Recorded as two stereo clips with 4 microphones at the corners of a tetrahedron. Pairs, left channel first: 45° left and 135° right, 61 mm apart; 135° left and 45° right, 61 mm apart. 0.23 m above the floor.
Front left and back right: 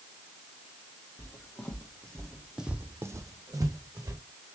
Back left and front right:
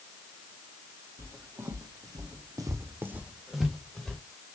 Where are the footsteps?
10° right, 1.5 m; by 4.2 s 145° right, 1.3 m.